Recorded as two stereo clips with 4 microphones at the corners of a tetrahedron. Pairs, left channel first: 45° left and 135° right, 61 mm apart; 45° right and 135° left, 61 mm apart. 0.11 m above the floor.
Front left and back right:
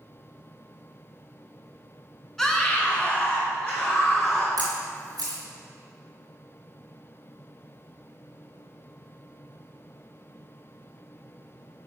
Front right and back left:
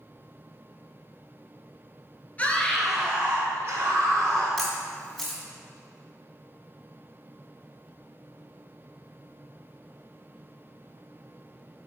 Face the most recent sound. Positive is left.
turn(degrees=-130)